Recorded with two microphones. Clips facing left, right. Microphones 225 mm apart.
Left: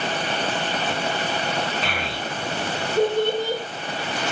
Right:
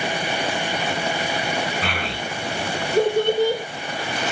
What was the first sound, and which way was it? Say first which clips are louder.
A child speaking: right 1 dB; 65° right (ahead or behind).